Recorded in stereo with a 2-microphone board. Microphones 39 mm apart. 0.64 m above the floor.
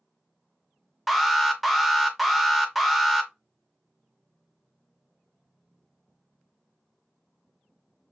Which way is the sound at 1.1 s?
Centre (ahead or behind).